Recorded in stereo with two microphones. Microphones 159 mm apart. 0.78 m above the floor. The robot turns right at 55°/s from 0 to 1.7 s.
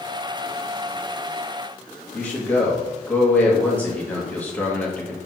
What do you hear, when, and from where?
2.1 s a man speaking: 10° left (ahead or behind), 1.1 m